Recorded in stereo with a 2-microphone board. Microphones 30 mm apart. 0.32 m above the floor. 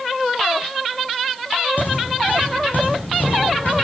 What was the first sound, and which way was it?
Footsteps, 75° left (ahead or behind).